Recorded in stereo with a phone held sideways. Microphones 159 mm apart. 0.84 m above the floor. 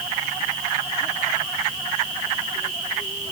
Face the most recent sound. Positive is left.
No sound to turn to.